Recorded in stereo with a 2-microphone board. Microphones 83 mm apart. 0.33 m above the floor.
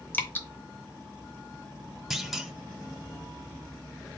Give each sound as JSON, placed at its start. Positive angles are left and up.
{"t": 0.1, "sound": "dripping", "side_deg": 20, "distance_m": 0.7}
{"t": 2.1, "sound": "a clunk", "side_deg": -5, "distance_m": 0.6}